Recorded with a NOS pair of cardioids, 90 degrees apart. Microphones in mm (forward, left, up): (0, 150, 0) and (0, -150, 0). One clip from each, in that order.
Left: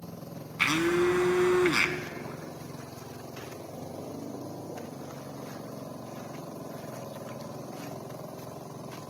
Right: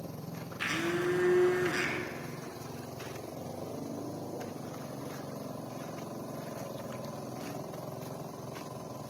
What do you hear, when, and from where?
0.6 s a blender: 60° left, 1.8 m